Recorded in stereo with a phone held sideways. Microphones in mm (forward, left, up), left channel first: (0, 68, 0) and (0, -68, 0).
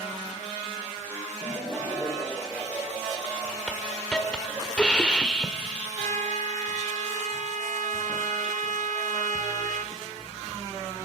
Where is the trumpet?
70° right (ahead or behind), 1.4 m.